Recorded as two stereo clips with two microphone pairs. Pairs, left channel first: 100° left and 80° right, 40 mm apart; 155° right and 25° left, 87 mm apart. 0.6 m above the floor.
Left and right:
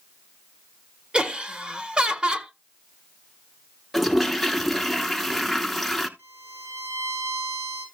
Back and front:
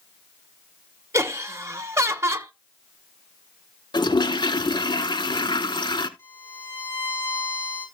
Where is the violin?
95° right, 8.5 m.